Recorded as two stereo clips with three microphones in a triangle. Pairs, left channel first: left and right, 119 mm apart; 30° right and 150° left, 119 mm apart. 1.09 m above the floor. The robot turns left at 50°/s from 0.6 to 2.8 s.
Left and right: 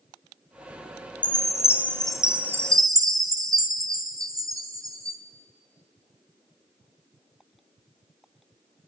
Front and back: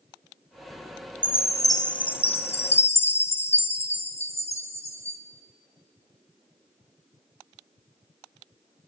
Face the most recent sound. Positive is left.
turn(degrees=-35)